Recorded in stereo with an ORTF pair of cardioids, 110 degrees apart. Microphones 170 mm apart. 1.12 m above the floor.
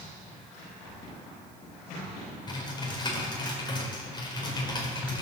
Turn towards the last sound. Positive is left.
turn(degrees=25)